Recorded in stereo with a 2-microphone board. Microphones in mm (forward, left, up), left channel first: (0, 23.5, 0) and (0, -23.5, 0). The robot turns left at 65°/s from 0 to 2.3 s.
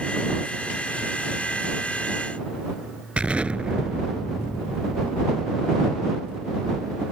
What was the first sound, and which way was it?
An explosion, 25° right (ahead or behind).